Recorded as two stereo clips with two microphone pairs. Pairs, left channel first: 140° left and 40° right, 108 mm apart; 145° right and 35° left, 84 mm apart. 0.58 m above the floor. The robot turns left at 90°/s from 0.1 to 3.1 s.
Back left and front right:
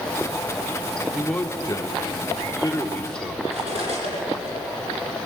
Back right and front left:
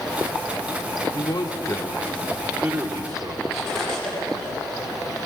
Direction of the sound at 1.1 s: 125° right.